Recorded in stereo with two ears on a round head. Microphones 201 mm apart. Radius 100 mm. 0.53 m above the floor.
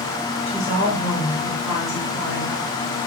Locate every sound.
0.5 s a woman speaking: 30° left (ahead or behind), 2.5 m